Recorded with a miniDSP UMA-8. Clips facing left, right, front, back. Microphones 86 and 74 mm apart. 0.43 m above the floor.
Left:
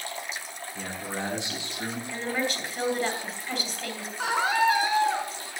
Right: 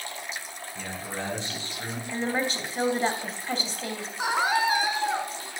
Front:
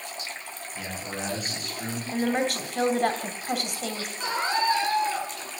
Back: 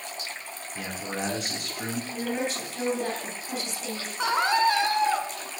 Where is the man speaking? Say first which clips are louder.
Left 1 dB, back 2 dB; 165° left, 5 m.